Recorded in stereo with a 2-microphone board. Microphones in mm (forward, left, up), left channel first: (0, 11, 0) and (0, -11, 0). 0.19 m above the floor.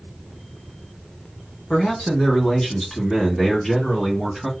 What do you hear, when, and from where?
1.7 s a man speaking: 40° left (ahead or behind), 1.9 m; by 4.5 s 15° left (ahead or behind), 2.0 m